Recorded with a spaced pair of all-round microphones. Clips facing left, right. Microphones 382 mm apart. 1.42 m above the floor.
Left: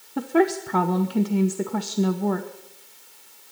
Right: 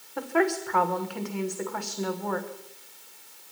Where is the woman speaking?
45° left (ahead or behind), 1.1 m.